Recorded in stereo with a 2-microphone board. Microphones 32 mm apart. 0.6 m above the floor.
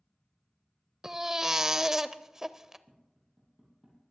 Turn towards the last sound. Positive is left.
turn(degrees=-20)  # may be behind; listen again after turning